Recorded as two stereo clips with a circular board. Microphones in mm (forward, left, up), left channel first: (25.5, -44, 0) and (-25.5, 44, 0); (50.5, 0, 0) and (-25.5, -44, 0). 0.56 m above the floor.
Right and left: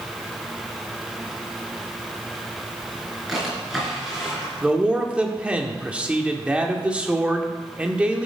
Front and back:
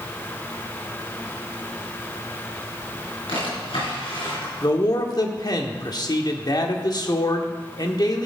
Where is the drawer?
30° left, 5 m.